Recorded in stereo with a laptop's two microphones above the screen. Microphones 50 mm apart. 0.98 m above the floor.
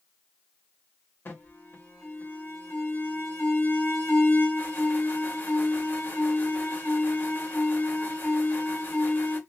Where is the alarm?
45° left (ahead or behind), 1.6 m.